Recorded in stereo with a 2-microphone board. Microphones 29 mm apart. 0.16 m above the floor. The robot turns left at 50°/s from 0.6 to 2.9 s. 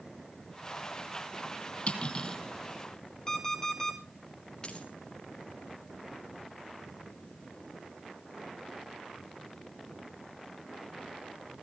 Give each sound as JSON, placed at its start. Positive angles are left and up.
{"t": 1.9, "sound": "cutlery clinking", "side_deg": 40, "distance_m": 2.5}
{"t": 3.3, "sound": "an alarm clock", "side_deg": 20, "distance_m": 2.5}
{"t": 4.6, "sound": "a dropped coin", "side_deg": 25, "distance_m": 2.5}